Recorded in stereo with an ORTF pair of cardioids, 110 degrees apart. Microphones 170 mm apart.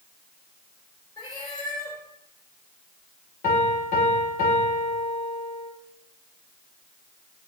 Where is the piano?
50° left, 1.8 m.